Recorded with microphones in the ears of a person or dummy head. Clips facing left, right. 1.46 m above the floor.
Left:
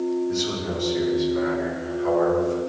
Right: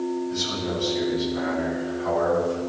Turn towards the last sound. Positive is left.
turn(degrees=55)  # may be behind; listen again after turning